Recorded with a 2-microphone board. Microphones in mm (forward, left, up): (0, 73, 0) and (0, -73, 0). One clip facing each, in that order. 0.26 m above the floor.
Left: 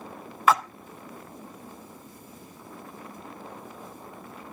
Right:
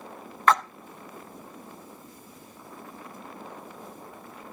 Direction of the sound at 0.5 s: 5° left (ahead or behind).